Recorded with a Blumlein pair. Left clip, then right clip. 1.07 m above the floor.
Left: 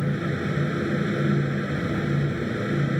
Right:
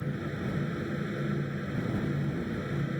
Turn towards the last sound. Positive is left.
turn(degrees=65)